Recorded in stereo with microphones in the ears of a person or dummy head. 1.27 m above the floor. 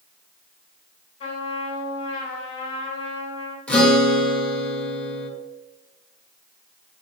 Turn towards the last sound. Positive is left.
turn(degrees=10)  # may be behind; listen again after turning